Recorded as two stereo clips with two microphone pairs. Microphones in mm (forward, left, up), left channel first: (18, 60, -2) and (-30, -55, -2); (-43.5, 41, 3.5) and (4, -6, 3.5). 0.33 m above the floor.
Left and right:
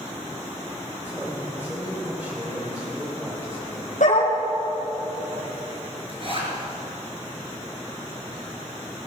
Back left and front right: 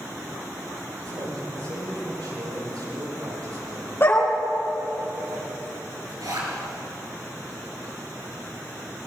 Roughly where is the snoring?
No snoring in this recording.